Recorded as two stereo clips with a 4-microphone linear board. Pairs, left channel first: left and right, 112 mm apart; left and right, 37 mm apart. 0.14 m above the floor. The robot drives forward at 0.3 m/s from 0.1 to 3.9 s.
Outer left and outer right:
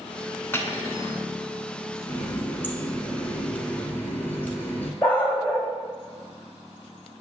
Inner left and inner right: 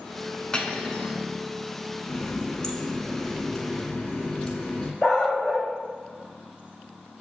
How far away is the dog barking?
About 1.7 m.